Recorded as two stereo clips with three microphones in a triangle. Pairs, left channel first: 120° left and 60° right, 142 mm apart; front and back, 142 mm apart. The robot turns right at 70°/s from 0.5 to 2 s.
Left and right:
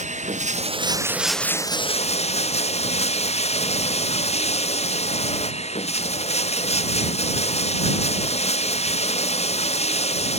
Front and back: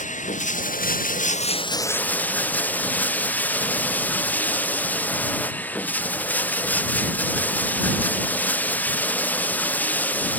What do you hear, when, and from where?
0.0 s running water: 25° right; by 10.4 s 80° left